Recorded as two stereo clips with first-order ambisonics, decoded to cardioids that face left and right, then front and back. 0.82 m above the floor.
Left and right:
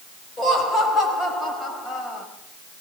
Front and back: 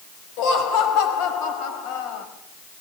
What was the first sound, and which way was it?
Laughter, 15° left.